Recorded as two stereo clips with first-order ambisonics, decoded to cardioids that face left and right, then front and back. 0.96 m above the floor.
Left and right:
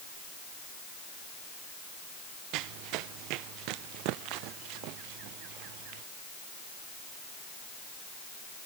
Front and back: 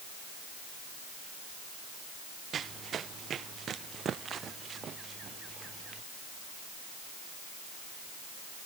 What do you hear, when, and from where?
2.5 s running footsteps: 120° right; by 6.0 s 115° right